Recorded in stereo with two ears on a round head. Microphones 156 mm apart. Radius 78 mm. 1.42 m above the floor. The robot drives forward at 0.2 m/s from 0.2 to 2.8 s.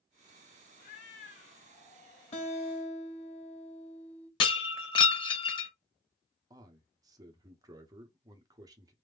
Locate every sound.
0.8 s a cat meowing: 50° left (ahead or behind), 1.6 m
2.3 s a guitar: 40° left (ahead or behind), 1.0 m
4.4 s breaking glass: 30° left (ahead or behind), 0.8 m
6.5 s a man speaking: 25° right (ahead or behind), 0.8 m